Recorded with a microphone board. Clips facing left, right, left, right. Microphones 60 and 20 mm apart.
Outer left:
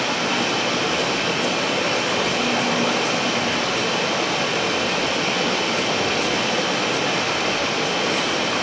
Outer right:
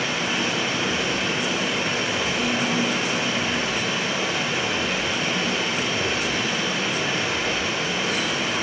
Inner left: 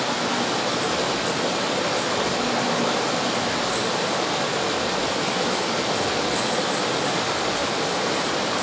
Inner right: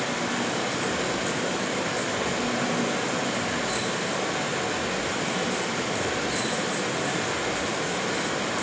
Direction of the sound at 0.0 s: 70° left (ahead or behind).